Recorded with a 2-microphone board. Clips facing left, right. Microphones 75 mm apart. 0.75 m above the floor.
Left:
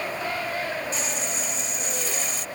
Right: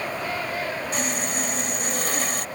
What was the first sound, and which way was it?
Sawing, 60° right (ahead or behind).